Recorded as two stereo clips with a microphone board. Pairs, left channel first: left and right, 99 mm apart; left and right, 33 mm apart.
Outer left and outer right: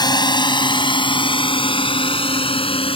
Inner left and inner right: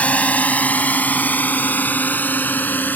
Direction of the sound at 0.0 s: 45° left (ahead or behind).